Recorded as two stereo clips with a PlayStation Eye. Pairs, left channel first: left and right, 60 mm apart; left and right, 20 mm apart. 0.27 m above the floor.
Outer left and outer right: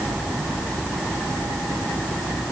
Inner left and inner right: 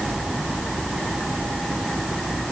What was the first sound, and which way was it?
Only background noise.